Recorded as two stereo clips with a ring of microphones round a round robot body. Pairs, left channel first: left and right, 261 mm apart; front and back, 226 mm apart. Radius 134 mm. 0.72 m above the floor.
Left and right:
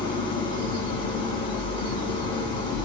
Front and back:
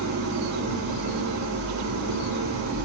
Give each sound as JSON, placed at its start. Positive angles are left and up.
{"t": 0.0, "sound": "an engine running", "azimuth_deg": 155, "distance_m": 7.5}